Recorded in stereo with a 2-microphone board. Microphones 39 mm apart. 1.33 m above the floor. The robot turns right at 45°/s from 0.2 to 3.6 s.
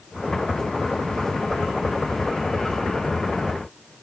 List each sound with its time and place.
Only background noise.